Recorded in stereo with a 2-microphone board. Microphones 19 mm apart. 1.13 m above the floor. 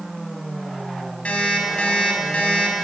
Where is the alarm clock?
80° left, 5 m.